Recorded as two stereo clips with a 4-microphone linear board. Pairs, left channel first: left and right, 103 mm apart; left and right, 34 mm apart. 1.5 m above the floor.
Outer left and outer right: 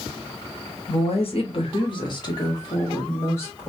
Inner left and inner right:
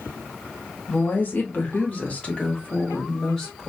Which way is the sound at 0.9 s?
75° left (ahead or behind).